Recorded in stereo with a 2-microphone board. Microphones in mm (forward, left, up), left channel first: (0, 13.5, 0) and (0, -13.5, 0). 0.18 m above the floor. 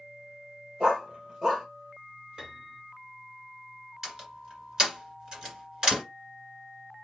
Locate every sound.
0.8 s a dog barking: 35° right (ahead or behind), 1.4 m
2.4 s a piano: 25° right (ahead or behind), 2.0 m
4.0 s a door slam: 35° right (ahead or behind), 1.9 m